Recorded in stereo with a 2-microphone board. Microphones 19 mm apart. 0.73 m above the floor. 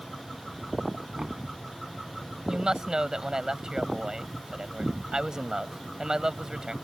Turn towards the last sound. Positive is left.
turn(degrees=-40)  # may be behind; listen again after turning